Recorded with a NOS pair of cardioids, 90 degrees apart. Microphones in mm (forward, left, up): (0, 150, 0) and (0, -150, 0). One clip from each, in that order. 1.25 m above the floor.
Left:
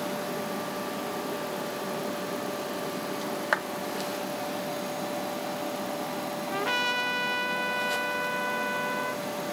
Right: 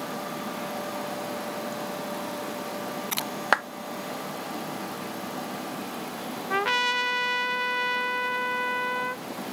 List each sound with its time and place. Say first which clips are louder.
3.5 s a clap: right 5 dB; 55° right
6.5 s a trumpet: right 4 dB; 40° right